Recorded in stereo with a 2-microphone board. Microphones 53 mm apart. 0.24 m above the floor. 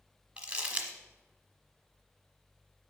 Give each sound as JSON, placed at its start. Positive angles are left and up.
{"t": 0.4, "sound": "crumpling", "side_deg": -20, "distance_m": 1.0}